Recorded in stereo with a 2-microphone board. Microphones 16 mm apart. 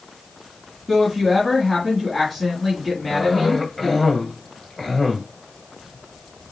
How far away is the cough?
About 1.7 m.